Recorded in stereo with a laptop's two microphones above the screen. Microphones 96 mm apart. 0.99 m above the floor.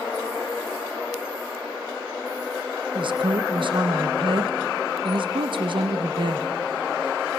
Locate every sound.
3.0 s a woman speaking: 60° right (ahead or behind), 1.0 m